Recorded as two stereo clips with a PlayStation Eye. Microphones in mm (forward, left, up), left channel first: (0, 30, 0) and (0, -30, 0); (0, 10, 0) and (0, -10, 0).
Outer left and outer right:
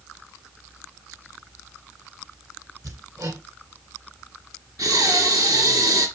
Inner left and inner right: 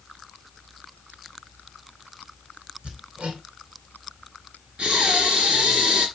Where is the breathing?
75° right (ahead or behind), 3.5 m.